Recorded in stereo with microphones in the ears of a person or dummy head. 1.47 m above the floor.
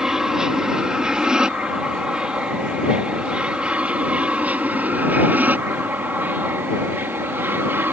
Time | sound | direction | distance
0.0 | an aircraft | 5° right (ahead or behind) | ?